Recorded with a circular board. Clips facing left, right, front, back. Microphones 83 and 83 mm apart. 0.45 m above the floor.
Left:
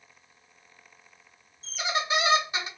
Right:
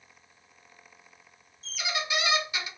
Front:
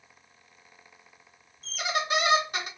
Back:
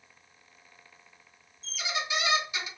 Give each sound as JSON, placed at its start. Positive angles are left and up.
{"t": 1.6, "sound": "a squeak", "azimuth_deg": 35, "distance_m": 0.6}